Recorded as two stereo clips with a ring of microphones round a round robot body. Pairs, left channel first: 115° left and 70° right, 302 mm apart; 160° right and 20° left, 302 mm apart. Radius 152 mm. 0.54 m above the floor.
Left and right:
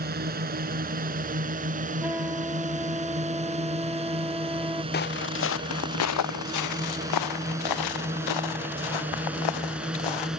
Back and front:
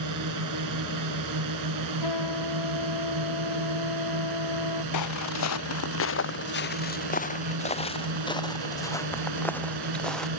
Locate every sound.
0.0 s a drone: 5° right; by 10.4 s 20° left
2.0 s a trumpet: 150° right
4.9 s footsteps: 170° left; by 10.3 s 115° left